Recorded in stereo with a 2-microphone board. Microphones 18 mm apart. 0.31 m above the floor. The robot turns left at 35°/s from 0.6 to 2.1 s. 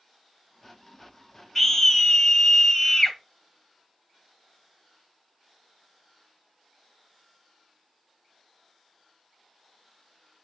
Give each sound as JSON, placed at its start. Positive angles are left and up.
{"t": 1.6, "sound": "a scream", "side_deg": 10, "distance_m": 1.4}